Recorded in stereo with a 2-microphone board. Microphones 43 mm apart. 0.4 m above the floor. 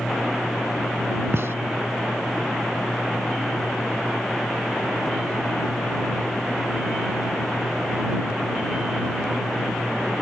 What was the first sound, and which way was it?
A gunshot, 75° right (ahead or behind).